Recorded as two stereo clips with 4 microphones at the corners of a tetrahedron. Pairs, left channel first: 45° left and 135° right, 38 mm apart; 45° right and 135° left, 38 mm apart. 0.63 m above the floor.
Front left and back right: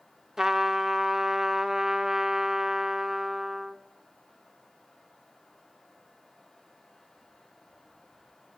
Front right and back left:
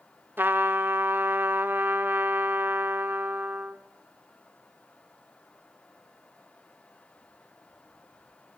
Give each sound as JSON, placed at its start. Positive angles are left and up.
{"t": 0.4, "sound": "a trumpet", "azimuth_deg": 150, "distance_m": 0.7}